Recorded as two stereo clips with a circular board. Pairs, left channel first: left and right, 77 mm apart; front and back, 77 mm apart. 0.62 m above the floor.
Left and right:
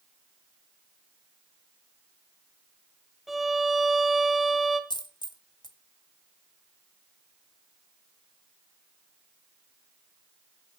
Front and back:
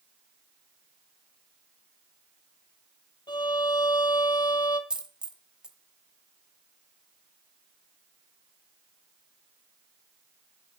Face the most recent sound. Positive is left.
turn(degrees=100)